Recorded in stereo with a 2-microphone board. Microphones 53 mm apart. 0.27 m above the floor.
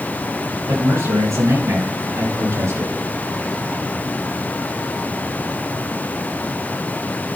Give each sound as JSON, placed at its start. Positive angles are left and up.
{"t": 0.7, "sound": "a man speaking", "side_deg": -75, "distance_m": 6.0}